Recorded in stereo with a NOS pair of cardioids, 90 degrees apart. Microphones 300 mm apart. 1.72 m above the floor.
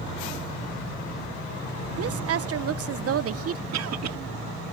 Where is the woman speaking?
50° right.